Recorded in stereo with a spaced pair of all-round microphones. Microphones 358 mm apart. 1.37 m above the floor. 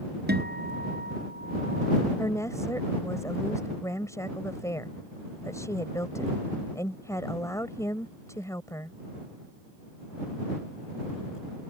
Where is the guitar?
25° right (ahead or behind).